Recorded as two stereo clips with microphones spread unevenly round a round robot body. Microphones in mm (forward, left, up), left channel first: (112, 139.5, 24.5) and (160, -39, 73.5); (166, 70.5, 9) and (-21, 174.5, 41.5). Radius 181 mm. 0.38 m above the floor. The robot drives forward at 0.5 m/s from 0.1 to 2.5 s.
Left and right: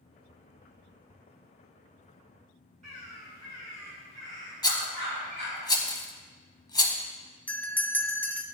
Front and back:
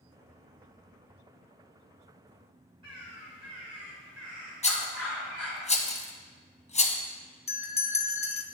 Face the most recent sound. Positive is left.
turn(degrees=30)